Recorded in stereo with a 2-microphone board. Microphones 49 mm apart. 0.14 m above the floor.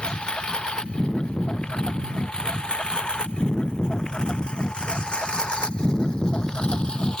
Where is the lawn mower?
20° left (ahead or behind).